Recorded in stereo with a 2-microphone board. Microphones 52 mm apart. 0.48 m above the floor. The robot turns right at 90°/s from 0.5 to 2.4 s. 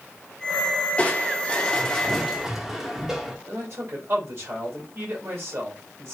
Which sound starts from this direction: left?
Crushing, at 1.0 s.